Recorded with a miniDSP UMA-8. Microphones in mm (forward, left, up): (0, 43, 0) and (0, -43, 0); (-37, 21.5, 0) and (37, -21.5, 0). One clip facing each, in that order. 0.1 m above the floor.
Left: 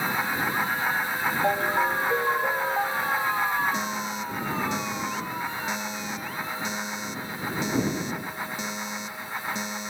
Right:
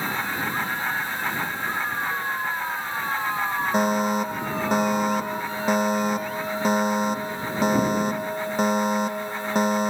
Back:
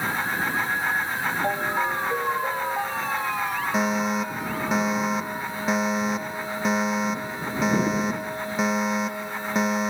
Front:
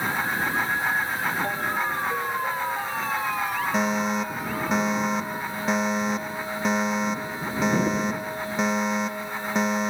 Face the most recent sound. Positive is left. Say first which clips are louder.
# right 9 dB, back 1 dB
turn(degrees=-120)